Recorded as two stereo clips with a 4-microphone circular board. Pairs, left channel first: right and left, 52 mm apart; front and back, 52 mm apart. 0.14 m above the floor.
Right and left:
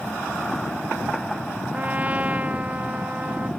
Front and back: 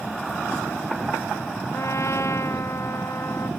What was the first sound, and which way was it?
A trumpet, 30° left.